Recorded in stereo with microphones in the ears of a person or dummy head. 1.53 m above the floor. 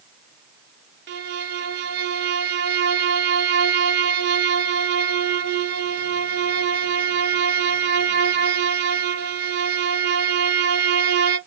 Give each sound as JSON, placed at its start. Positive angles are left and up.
{"t": 1.1, "sound": "a violin", "side_deg": -60, "distance_m": 0.9}